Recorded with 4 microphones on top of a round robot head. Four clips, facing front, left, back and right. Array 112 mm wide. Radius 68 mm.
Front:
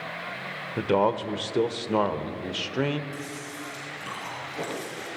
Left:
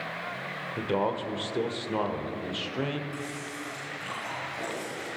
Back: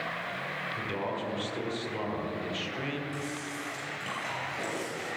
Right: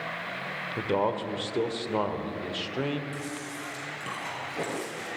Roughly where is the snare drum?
No snare drum in this recording.